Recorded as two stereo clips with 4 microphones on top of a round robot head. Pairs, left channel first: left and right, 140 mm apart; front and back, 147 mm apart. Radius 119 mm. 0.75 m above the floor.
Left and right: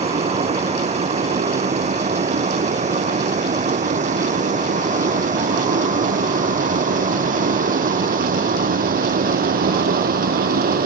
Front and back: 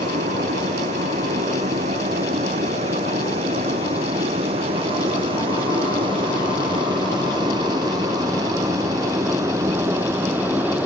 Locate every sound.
0.0 s a vehicle: 130° right; by 10.9 s 100° right